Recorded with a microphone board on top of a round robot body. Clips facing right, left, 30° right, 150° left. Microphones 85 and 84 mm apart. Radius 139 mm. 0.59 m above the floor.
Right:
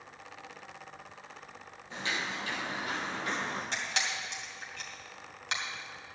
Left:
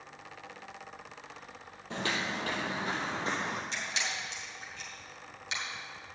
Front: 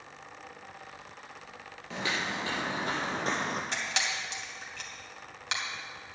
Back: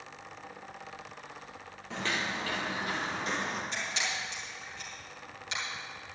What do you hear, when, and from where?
1.9 s footsteps: 60° left, 1.1 m; by 3.6 s 15° left, 1.7 m
3.7 s a camera shutter: 55° right, 3 m